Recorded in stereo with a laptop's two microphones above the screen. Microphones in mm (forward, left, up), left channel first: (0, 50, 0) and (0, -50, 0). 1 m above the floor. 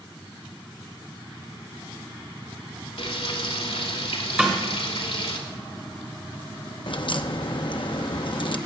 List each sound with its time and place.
3.0 s frying: 75° left (ahead or behind), 2.5 m
4.4 s a snare drum: 10° right (ahead or behind), 2.0 m
6.9 s a crack: 55° left (ahead or behind), 0.7 m